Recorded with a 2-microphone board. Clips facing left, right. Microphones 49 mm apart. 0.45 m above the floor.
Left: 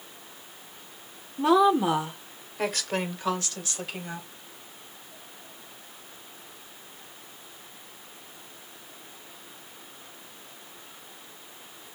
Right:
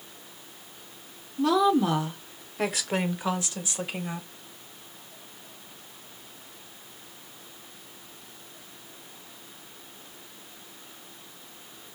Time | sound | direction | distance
1.4 | a woman speaking | 25° left (ahead or behind) | 0.8 m